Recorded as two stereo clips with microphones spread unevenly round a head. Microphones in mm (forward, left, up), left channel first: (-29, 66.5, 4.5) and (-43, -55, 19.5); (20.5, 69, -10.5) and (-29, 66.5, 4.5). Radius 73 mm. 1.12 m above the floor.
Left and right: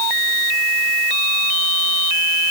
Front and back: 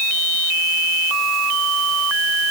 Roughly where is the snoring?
I don't hear snoring.